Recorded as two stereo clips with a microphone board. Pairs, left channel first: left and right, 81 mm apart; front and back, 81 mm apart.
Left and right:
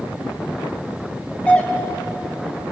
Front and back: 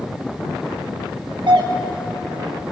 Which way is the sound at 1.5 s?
165° left.